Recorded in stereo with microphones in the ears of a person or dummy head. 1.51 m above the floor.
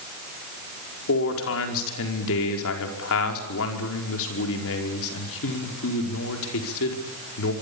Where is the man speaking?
75° left (ahead or behind), 5 m.